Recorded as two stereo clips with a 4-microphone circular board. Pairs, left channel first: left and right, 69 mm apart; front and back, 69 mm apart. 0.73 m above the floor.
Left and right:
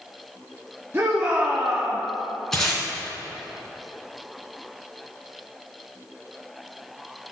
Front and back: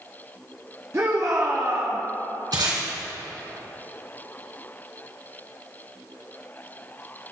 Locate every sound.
0.9 s a shout: 140° right, 1.1 m; by 2.0 s 175° right, 1.1 m
2.5 s tape being pulled: 175° left, 2.5 m